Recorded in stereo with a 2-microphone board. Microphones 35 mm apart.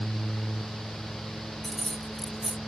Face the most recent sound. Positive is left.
turn(degrees=10)  # may be behind; listen again after turning